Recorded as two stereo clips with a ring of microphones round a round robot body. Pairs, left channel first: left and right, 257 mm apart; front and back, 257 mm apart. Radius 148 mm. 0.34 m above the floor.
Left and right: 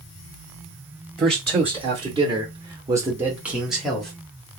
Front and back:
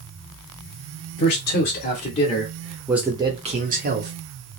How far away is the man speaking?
About 1.2 m.